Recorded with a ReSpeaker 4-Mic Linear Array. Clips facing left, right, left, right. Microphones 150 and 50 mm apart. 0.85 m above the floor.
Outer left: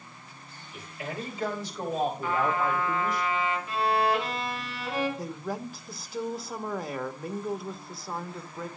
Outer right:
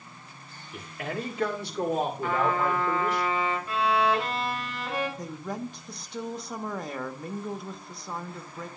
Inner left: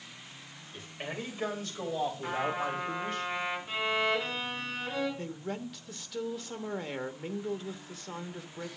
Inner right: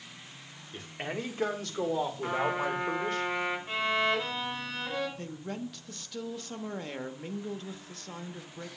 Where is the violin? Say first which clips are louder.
Outer right 1 dB, inner right 1 dB; 45° right (ahead or behind), 6 m.